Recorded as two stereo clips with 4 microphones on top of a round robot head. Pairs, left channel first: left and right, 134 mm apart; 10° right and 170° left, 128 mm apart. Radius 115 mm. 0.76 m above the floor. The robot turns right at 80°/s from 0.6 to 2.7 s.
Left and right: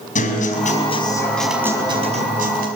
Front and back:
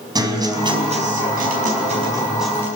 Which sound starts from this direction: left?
A guitar, at 0.1 s.